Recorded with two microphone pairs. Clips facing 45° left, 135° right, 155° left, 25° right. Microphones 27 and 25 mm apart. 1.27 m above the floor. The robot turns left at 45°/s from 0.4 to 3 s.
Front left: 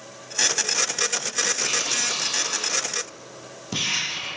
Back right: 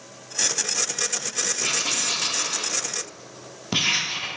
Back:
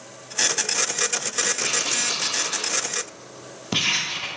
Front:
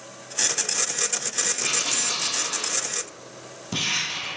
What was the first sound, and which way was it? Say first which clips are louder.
Writing: even, back 1 dB; 115° right.